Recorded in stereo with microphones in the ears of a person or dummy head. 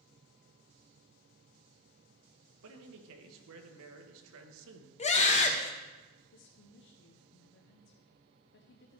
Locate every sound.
2.6 s a man speaking: 75° right (ahead or behind), 1.2 m
5.0 s a scream: 35° left (ahead or behind), 1.0 m
6.3 s a woman speaking: 55° left (ahead or behind), 0.8 m